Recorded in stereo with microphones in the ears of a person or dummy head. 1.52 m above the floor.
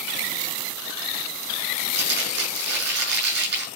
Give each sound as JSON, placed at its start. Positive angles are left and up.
{"t": 1.8, "sound": "crumpling", "side_deg": -55, "distance_m": 9.0}